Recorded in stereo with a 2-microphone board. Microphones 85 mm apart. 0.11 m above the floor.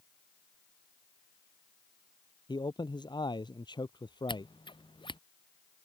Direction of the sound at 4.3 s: 75° left (ahead or behind).